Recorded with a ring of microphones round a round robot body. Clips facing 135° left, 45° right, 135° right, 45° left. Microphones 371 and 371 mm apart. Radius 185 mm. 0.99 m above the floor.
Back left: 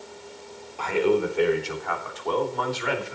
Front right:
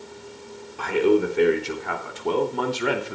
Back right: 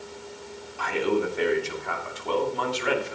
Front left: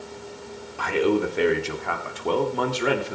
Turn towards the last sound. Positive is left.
turn(degrees=0)